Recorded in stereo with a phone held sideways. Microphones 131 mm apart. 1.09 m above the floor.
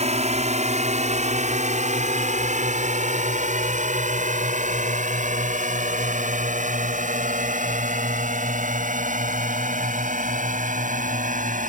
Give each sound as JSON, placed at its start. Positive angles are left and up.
{"t": 0.0, "sound": "a drone", "side_deg": -60}